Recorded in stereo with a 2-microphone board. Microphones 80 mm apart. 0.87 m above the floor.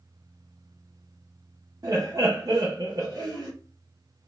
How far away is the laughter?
About 0.6 m.